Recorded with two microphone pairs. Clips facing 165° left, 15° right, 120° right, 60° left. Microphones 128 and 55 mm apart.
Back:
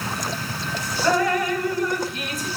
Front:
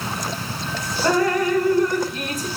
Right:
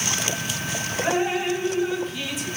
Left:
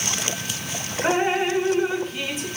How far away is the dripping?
About 2.0 m.